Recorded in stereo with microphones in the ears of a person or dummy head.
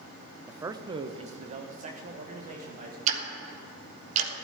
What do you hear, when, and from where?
0.5 s a man speaking: 5° right (ahead or behind), 0.6 m; by 3.0 s 40° right (ahead or behind), 2.5 m
3.1 s ticking: 50° right (ahead or behind), 1.6 m